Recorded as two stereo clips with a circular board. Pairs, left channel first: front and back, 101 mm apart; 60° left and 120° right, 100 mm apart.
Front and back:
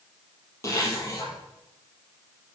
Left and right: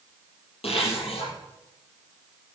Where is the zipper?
60° left, 5.5 m.